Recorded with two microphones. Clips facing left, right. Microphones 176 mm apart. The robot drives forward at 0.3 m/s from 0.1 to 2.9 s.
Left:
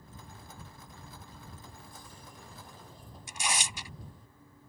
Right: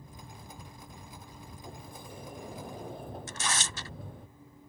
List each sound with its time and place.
1.6 s a sliding door: 65° right (ahead or behind); by 4.3 s 70° right (ahead or behind)
3.3 s tearing paper: 15° left (ahead or behind)